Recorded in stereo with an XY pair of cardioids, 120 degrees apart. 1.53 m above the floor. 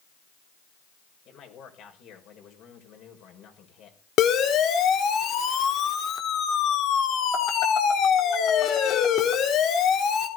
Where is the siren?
60° left, 4 m.